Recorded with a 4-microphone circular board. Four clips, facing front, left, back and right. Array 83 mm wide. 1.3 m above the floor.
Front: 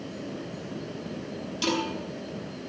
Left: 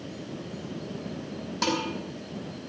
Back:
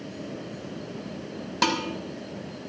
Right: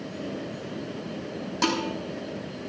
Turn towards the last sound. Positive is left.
turn(degrees=-175)